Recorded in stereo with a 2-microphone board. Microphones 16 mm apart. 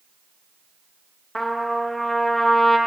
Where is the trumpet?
10° left (ahead or behind), 0.5 m.